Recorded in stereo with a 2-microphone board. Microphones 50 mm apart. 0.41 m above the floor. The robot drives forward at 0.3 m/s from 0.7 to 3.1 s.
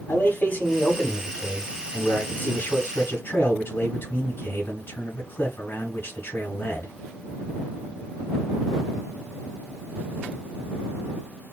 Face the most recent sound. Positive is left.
turn(degrees=55)  # may be behind; listen again after turning